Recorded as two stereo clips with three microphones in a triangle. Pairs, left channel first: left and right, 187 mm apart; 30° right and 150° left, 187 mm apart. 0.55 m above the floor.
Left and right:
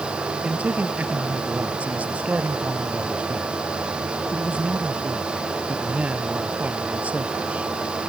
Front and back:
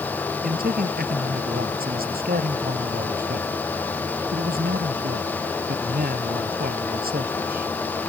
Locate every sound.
0.4 s a man speaking: 175° right